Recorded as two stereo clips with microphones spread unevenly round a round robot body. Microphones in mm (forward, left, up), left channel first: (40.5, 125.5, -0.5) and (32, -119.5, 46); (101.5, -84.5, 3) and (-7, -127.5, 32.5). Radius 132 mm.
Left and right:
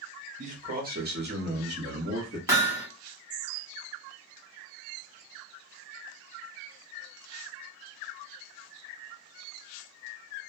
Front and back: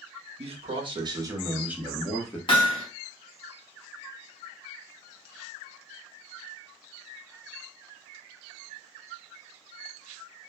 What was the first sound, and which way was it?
A man speaking, 150° right.